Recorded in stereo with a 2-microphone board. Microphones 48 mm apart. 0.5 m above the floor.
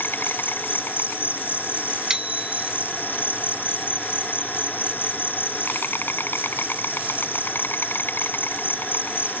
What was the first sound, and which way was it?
An insect, 45° left (ahead or behind).